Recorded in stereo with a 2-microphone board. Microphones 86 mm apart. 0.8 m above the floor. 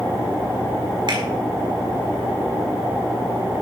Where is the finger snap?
70° right (ahead or behind), 4 m.